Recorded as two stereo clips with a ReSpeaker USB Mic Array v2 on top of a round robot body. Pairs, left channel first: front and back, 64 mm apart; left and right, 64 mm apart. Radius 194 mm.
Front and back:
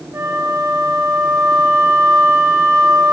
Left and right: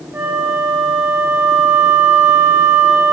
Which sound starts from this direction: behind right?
A flute, at 0.1 s.